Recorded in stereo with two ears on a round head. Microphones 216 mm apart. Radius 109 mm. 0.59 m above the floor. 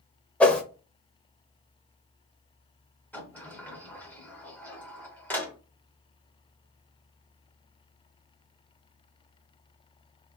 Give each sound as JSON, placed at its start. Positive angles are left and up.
{"t": 0.4, "sound": "a whoosh", "side_deg": 5, "distance_m": 0.7}
{"t": 3.1, "sound": "a sliding door", "side_deg": 5, "distance_m": 0.7}